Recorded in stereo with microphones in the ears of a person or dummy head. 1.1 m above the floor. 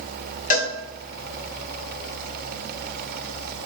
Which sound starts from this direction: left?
A cowbell, at 0.5 s.